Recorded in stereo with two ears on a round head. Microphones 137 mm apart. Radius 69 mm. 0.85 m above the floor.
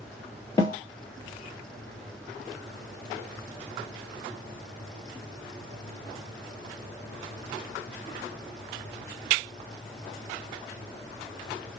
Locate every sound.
0.6 s a snare drum: 25° left (ahead or behind), 2 m